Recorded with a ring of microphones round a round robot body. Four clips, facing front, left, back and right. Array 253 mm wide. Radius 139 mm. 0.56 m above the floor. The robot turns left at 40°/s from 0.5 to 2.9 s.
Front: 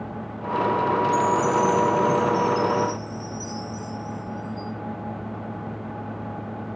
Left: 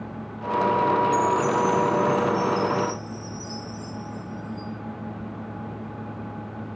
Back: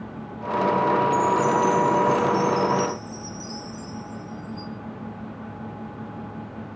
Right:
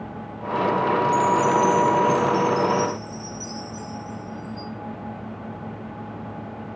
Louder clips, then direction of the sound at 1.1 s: Right 3 dB, even; 45° right.